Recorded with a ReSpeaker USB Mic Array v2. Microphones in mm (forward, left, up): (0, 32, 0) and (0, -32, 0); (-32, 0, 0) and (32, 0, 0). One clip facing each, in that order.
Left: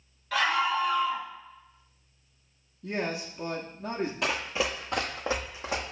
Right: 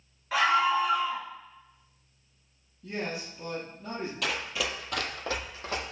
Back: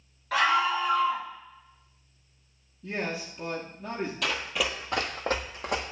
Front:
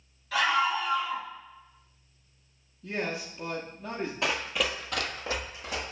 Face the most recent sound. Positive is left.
turn(degrees=165)